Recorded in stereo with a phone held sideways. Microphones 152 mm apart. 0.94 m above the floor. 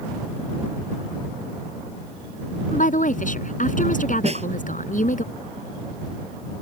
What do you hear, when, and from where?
2.7 s a woman speaking: 60° left (ahead or behind)
4.2 s a snare drum: 45° right (ahead or behind)